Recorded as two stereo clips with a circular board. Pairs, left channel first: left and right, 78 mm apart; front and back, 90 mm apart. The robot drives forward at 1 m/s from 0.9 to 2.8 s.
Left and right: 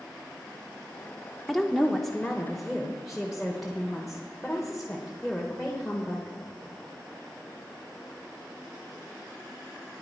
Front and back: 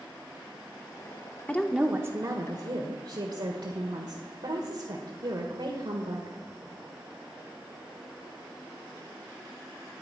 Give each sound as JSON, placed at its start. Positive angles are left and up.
{"t": 1.5, "sound": "a woman speaking", "azimuth_deg": 5, "distance_m": 0.7}